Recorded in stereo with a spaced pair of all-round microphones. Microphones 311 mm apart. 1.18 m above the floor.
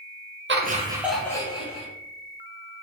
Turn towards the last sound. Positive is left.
turn(degrees=20)  # may be behind; listen again after turning